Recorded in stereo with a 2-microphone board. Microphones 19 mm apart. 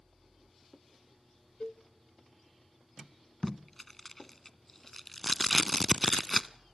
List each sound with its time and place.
1.6 s a cowbell: 50° left (ahead or behind), 0.9 m
3.4 s tape being pulled: 15° left (ahead or behind), 0.6 m